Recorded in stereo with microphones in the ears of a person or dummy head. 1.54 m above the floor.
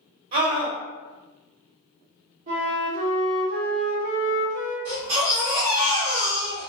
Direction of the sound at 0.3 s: 45° right (ahead or behind).